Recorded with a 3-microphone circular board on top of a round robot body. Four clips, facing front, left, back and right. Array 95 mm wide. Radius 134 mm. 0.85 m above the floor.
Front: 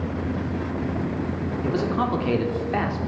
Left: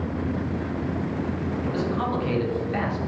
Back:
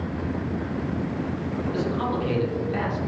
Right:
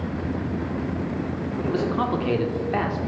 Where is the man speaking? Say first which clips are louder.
Right 4 dB, front 3 dB; 50° right, 2.5 m.